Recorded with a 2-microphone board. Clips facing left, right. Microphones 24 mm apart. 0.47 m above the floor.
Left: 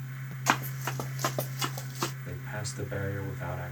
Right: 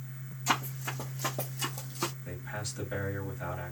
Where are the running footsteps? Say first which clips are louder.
Left 3 dB; 65° left (ahead or behind), 1.1 m; by 2.1 s 15° left (ahead or behind), 0.7 m.